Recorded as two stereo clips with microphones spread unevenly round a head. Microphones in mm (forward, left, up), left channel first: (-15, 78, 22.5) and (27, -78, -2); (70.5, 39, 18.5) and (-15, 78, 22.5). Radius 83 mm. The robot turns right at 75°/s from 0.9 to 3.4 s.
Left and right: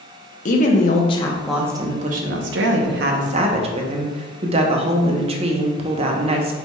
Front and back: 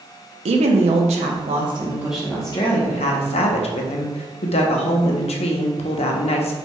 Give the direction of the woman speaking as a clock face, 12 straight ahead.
7 o'clock.